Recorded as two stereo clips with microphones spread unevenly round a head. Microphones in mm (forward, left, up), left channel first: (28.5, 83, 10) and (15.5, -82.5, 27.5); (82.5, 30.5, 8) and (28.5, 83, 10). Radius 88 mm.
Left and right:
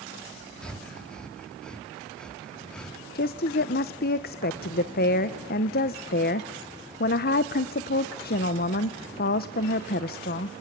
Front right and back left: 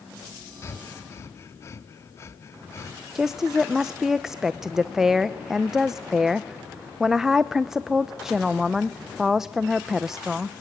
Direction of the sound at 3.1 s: 50° left.